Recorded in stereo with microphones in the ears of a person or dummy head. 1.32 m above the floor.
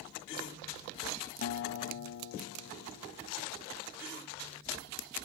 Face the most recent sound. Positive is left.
turn(degrees=50)  # may be behind; listen again after turning